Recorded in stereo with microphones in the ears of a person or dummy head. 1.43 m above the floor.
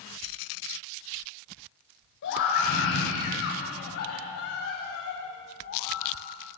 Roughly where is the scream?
Left.